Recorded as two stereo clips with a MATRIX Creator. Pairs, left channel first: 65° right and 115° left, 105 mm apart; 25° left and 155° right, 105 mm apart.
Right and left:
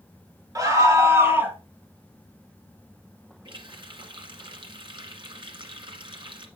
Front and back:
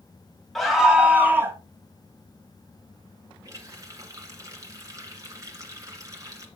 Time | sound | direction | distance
0.6 | a scream | 110° left | 1.6 m
3.5 | a running tap | 145° left | 1.8 m